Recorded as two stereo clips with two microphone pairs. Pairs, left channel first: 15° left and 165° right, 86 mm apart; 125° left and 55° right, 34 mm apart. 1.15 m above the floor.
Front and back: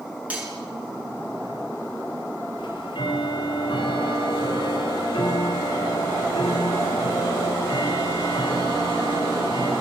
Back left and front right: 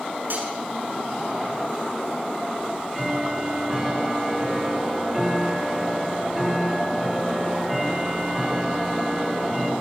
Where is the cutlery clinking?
90° right, 7.5 m.